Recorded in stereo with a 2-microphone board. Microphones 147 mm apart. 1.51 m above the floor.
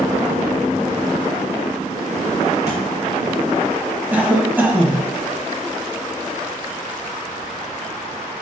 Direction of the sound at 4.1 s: 10° right (ahead or behind).